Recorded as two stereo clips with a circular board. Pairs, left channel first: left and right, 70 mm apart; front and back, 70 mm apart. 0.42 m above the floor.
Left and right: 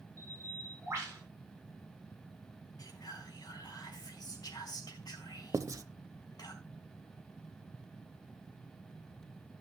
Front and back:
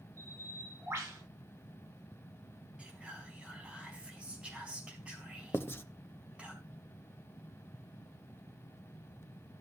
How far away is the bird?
About 8 m.